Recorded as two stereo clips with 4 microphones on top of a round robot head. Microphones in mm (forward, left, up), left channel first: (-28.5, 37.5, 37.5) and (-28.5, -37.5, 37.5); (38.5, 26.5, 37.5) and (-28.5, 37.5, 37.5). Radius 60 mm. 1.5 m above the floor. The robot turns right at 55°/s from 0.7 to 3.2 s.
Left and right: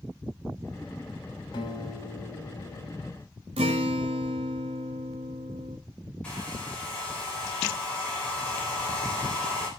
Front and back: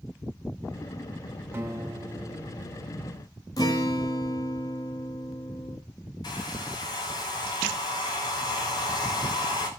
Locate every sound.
1.5 s a guitar: 115° left, 4 m; by 3.0 s 165° right, 4 m
3.6 s a guitar: 65° right, 1.6 m
6.2 s a hair dryer: 15° left, 4 m